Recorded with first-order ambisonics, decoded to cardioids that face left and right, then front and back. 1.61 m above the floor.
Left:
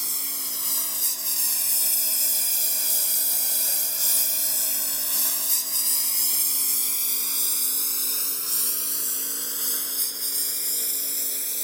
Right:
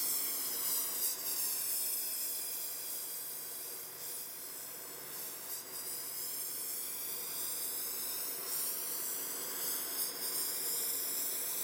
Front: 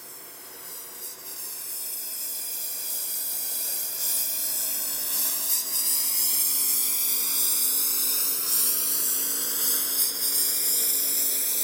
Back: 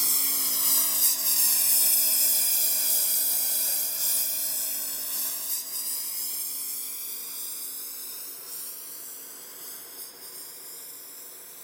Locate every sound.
0.0 s a lawn mower: 150° left; by 11.7 s 35° left